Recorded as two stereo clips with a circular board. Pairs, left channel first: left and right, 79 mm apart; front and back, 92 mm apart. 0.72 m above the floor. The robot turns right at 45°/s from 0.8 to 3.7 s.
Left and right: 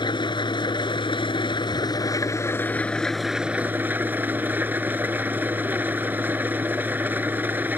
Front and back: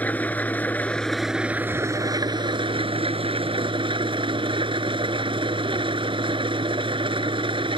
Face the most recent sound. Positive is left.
turn(degrees=-155)